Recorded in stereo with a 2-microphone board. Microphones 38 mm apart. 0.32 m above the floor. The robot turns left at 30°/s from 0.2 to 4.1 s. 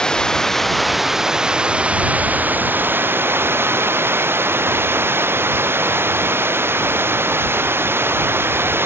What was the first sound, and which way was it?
Running water, 20° left.